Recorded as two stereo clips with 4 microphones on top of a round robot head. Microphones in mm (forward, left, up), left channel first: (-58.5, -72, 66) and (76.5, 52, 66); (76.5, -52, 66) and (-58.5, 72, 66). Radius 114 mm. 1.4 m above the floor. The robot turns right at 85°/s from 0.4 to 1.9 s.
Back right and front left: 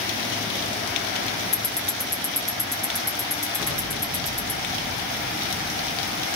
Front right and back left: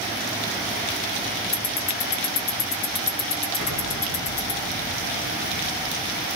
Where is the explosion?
45° right, 2.0 m.